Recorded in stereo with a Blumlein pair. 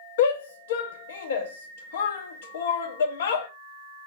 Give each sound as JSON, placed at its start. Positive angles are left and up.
{"t": 0.2, "sound": "a shout", "azimuth_deg": 60, "distance_m": 0.8}